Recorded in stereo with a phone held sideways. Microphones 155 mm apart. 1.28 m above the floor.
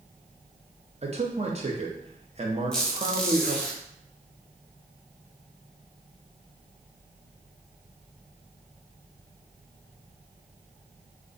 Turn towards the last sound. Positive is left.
turn(degrees=5)  # may be behind; listen again after turning